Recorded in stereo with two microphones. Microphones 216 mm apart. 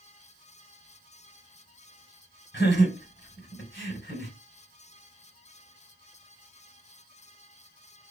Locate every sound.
2.5 s laughter: 55° left (ahead or behind), 3.5 m